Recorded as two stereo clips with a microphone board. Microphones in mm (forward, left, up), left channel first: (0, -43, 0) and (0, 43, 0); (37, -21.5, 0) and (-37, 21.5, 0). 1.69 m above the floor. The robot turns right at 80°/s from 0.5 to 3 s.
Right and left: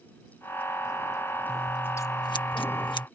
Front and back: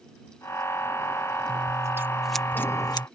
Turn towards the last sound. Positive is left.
turn(degrees=-65)